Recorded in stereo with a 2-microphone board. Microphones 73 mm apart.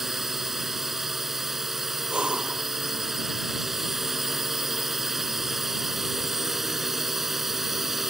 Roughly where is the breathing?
Centre.